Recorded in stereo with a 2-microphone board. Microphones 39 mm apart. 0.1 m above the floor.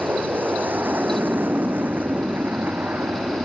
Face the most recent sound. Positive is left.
turn(degrees=-55)  # may be behind; listen again after turning